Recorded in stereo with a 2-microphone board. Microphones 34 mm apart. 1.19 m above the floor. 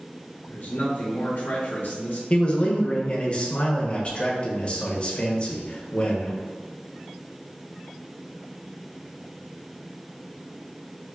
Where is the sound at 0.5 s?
75° left (ahead or behind), 1.1 m.